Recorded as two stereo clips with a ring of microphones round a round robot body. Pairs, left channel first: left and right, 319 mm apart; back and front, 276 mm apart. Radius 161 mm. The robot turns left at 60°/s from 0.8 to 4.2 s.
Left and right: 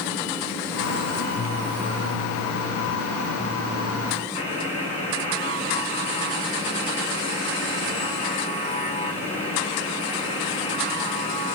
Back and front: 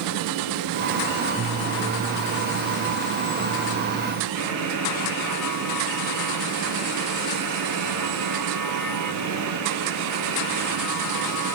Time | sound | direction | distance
4.3 | a buzzer | 15° left | 6.5 m